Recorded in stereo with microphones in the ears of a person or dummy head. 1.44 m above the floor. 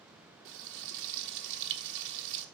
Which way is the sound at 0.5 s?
60° right (ahead or behind).